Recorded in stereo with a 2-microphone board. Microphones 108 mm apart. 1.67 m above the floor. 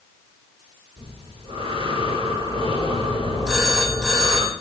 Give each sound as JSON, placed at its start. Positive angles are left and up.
{"t": 1.0, "sound": "breathing", "side_deg": -65, "distance_m": 5.5}
{"t": 3.5, "sound": "a phone ringing", "side_deg": -5, "distance_m": 8.0}